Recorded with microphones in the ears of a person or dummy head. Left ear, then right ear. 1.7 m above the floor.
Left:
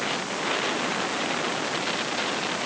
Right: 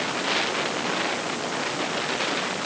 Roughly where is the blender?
No blender in this recording.